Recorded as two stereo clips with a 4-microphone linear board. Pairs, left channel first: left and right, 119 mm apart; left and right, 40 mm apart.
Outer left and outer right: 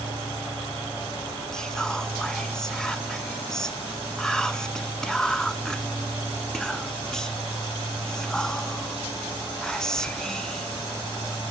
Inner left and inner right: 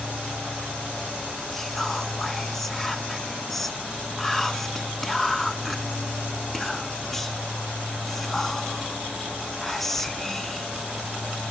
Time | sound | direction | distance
1.5 | whispering | 5° left (ahead or behind) | 1.1 m